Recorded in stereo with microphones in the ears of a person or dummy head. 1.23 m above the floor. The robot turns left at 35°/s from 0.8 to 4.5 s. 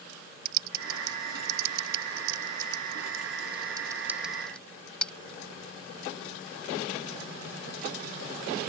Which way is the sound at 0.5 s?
60° right (ahead or behind).